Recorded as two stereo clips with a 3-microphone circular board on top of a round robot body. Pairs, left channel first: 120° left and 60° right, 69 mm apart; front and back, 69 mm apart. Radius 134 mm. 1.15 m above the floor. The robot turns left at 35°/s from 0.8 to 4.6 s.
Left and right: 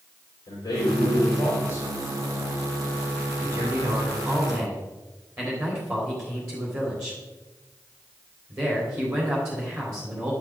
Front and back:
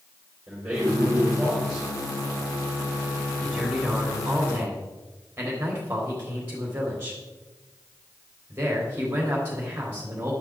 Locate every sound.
0.5 s a man speaking: 110° left, 5 m; by 1.9 s 75° left, 5 m
3.4 s a man speaking: 75° right, 4 m; by 10.3 s 115° right, 4 m